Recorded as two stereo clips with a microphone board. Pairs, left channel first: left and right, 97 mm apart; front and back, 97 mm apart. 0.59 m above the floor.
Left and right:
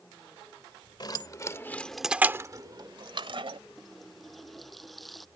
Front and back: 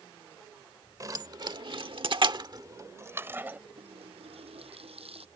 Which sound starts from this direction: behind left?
Keys jangling, at 1.0 s.